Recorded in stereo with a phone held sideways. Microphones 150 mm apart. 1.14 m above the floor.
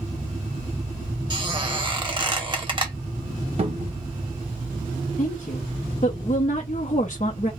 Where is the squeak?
30° right (ahead or behind), 1.3 m.